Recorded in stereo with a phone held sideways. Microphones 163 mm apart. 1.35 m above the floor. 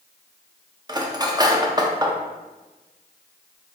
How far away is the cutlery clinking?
About 0.6 m.